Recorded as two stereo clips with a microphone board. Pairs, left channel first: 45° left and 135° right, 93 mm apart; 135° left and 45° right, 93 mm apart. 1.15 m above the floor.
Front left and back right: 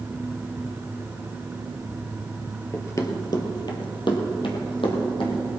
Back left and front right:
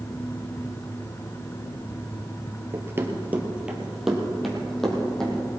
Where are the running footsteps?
Straight ahead, 1.4 m; by 5.5 s 55° left, 3 m.